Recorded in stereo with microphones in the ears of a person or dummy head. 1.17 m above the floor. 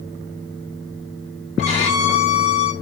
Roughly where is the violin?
Left.